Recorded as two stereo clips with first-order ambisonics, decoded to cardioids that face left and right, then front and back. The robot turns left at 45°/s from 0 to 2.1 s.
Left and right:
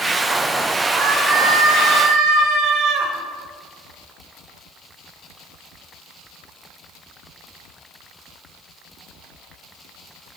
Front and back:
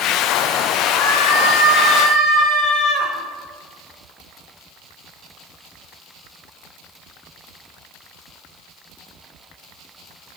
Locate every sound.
0.9 s a scream: 5° right, 5 m; by 3.1 s 60° right, 5 m